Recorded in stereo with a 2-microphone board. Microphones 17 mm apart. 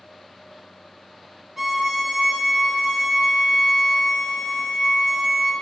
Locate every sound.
1.6 s a violin: 25° right (ahead or behind), 1.1 m